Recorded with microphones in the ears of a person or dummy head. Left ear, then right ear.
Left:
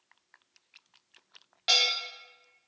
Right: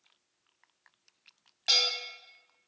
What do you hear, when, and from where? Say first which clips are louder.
1.7 s a bell: left 1 dB; 10° left (ahead or behind), 1.2 m